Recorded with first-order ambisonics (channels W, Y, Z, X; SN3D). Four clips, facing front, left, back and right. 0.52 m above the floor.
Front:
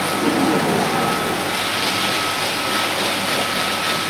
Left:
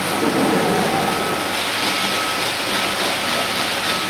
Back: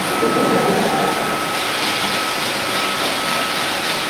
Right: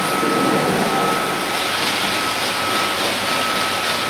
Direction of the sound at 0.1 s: 175° left.